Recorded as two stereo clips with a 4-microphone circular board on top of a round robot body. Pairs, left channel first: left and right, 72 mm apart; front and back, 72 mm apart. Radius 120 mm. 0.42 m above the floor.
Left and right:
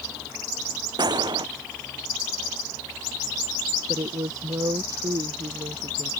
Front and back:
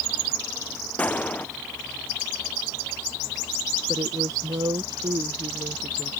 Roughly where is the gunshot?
Right.